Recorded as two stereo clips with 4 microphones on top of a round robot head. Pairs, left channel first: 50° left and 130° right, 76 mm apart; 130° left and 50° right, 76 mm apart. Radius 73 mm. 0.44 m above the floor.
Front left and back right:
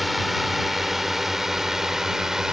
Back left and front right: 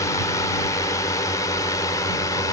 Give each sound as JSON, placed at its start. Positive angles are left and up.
{"t": 0.0, "sound": "a drone", "azimuth_deg": 140}